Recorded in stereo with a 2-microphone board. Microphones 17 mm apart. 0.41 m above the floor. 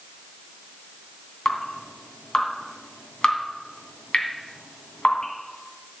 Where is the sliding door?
No sliding door in this recording.